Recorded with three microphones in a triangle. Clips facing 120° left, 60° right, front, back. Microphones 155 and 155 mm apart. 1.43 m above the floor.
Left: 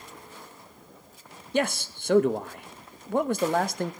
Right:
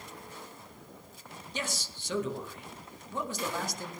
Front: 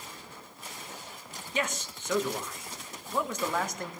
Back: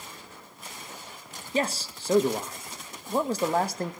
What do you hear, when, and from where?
1.5 s a man speaking: 130° left, 0.8 m